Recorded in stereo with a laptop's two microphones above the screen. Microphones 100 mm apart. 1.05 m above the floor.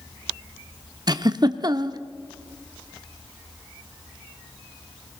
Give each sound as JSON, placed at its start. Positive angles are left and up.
{"t": 1.1, "sound": "a giggle", "side_deg": -45, "distance_m": 0.7}